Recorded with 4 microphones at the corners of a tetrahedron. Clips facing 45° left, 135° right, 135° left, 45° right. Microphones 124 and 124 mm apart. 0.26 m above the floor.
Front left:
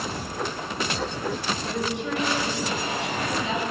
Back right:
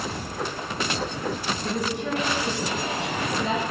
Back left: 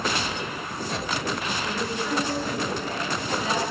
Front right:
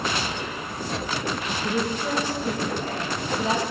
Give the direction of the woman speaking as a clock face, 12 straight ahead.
3 o'clock.